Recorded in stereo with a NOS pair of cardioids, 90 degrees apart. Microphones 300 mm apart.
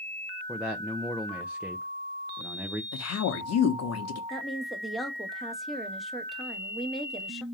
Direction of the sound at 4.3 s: Straight ahead.